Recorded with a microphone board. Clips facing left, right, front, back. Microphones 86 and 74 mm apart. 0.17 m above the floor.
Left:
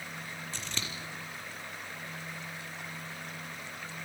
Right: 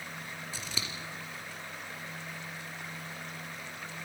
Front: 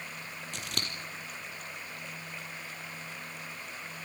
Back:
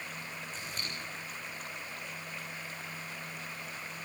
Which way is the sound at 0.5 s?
10° right.